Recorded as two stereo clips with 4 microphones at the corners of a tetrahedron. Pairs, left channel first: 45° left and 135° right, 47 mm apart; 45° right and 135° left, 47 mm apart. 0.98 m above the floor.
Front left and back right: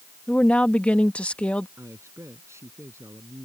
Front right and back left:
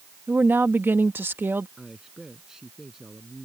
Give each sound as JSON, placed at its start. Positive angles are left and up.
{"t": 0.3, "sound": "a woman speaking", "azimuth_deg": 105}
{"t": 1.8, "sound": "a man speaking", "azimuth_deg": -145}